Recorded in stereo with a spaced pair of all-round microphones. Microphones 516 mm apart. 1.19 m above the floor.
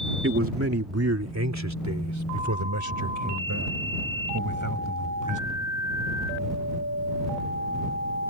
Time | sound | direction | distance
0.2 | a man speaking | 25° right (ahead or behind) | ?